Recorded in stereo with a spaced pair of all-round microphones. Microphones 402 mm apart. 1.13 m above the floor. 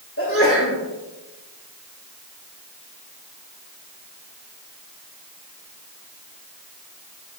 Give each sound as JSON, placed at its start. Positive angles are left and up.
{"t": 0.2, "sound": "a sneeze", "side_deg": 35, "distance_m": 2.0}